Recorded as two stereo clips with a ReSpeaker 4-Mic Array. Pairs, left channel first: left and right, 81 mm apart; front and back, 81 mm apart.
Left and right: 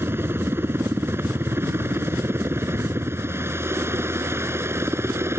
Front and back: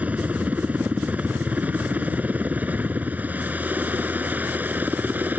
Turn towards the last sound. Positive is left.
turn(degrees=-125)